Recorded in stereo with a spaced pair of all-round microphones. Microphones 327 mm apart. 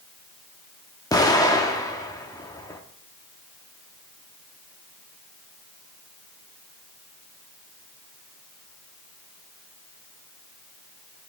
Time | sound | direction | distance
1.1 | an explosion | 10° left (ahead or behind) | 0.8 m